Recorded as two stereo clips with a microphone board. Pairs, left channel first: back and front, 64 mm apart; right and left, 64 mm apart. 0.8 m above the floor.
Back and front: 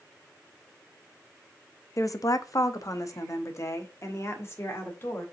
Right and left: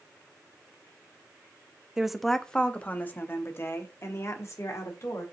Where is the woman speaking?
165° left, 0.6 m; by 5.2 s 130° right, 1.9 m.